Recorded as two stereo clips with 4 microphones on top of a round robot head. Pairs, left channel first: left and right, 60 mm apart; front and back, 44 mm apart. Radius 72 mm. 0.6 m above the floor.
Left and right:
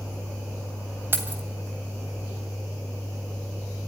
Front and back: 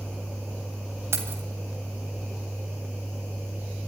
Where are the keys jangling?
145° right, 2.5 m.